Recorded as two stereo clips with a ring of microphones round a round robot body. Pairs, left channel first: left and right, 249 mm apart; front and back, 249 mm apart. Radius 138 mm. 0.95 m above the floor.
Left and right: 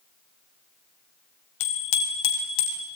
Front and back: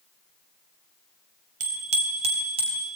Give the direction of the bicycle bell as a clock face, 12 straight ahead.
8 o'clock.